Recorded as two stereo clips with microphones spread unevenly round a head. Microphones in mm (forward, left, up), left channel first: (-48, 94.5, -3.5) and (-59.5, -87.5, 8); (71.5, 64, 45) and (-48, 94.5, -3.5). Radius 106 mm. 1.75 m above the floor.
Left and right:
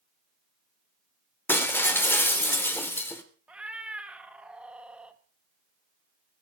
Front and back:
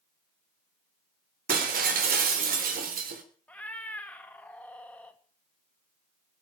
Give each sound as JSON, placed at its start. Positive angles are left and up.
{"t": 1.5, "sound": "breaking glass", "azimuth_deg": 165, "distance_m": 3.5}
{"t": 3.5, "sound": "a cat meowing", "azimuth_deg": -20, "distance_m": 1.2}